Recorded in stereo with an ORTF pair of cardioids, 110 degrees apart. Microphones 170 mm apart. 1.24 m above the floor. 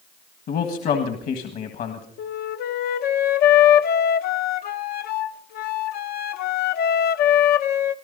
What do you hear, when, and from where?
0.5 s a man speaking: 60° left, 1.6 m
2.2 s a flute: 70° left, 0.8 m